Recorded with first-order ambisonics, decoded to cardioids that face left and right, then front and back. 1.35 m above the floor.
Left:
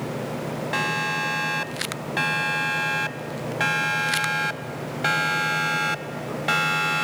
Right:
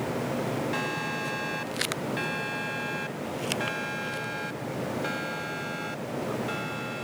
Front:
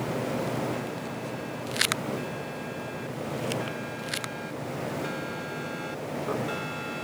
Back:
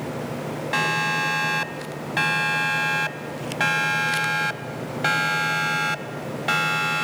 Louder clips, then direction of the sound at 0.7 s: Left 6 dB, back 13 dB; 155° left.